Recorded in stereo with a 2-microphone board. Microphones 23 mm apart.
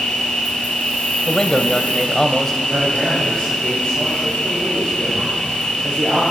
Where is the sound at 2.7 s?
30° left (ahead or behind), 9.5 m.